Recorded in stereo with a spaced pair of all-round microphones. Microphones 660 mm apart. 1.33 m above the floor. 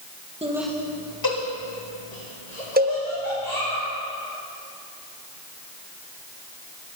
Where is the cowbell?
15° right (ahead or behind), 0.8 m.